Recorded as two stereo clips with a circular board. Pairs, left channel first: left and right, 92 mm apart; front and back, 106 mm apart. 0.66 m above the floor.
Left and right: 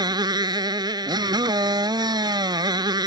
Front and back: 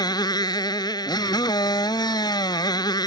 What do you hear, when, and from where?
0.0 s a motorcycle: 50° right